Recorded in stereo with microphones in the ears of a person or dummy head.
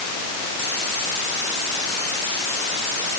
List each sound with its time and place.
Only background noise.